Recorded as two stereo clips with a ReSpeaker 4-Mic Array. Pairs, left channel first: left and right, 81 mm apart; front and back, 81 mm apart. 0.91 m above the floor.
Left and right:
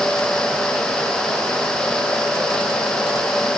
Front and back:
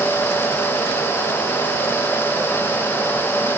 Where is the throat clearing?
I don't hear throat clearing.